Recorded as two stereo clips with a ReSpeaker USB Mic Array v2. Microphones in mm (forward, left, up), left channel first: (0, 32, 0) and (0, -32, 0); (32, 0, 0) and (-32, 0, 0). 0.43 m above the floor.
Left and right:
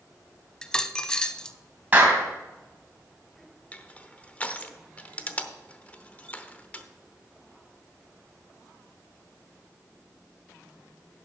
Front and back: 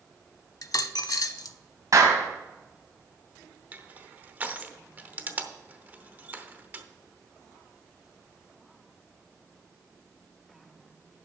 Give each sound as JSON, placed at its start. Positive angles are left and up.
{"t": 0.6, "sound": "a dropped coin", "azimuth_deg": 10, "distance_m": 0.5}
{"t": 1.9, "sound": "a clap", "azimuth_deg": -155, "distance_m": 2.5}
{"t": 3.7, "sound": "crushing", "azimuth_deg": 140, "distance_m": 0.8}